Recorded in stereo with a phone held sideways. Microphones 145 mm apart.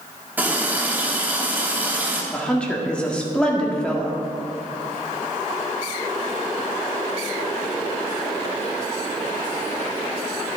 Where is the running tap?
10° right (ahead or behind), 1.5 m.